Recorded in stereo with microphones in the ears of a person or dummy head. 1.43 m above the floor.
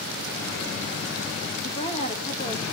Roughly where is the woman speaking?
Left.